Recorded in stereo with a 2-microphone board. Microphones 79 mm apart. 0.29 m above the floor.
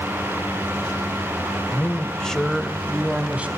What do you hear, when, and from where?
1.7 s a man speaking: 25° left (ahead or behind), 1.3 m; by 3.5 s 15° right (ahead or behind), 1.8 m